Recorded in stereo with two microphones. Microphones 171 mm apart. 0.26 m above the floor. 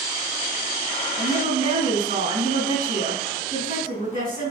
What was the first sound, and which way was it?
A woman speaking, 60° right (ahead or behind).